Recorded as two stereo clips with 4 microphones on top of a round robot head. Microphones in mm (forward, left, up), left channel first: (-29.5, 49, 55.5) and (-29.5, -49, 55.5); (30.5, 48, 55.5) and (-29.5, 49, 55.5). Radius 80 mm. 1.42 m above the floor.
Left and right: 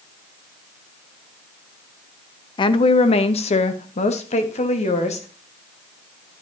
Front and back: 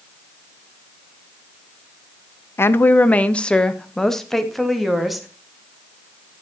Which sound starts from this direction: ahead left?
A woman speaking, at 2.6 s.